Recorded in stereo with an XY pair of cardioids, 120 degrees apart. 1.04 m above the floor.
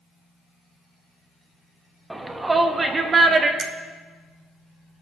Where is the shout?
10° right, 1.1 m; by 3.5 s 40° right, 1.6 m.